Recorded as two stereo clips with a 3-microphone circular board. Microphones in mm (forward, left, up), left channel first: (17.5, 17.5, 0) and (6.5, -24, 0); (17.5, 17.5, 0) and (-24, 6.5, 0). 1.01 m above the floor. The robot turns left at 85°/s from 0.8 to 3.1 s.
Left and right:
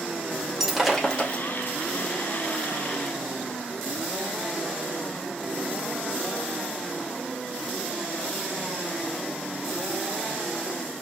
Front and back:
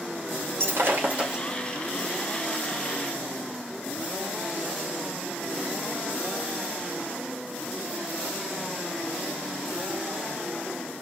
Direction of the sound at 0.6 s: 175° left.